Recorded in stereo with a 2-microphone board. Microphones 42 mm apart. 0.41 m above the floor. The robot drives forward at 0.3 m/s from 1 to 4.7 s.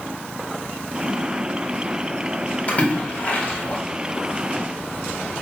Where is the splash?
35° left (ahead or behind), 1.5 m.